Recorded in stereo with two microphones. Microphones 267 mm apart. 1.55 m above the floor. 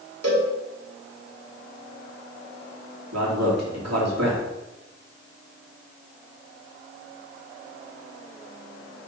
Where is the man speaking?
75° right (ahead or behind), 2.5 m.